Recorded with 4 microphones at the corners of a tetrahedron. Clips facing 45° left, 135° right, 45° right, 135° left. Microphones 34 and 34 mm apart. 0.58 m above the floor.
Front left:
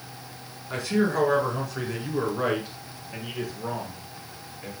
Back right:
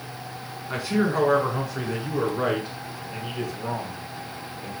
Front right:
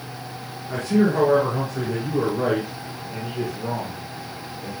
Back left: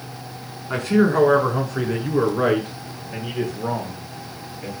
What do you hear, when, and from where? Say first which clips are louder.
0.7 s a man speaking: back right 1 dB, back left 2 dB; 150° left, 5 m; by 4.7 s 125° left, 7 m